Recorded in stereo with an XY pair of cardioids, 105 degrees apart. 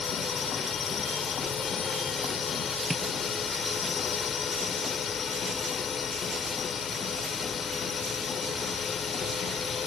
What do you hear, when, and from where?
0.0 s a drone: 45° left
2.9 s tapping: 5° right